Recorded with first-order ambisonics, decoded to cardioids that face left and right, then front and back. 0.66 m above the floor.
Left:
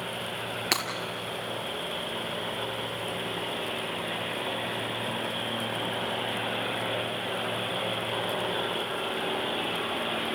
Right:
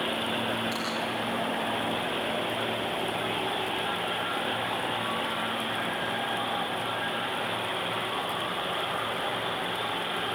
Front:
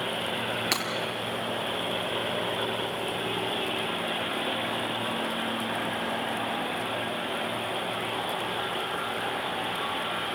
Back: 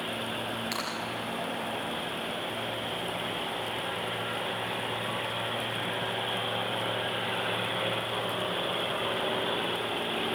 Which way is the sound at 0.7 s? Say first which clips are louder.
Left 5 dB, front 7 dB; 60° left.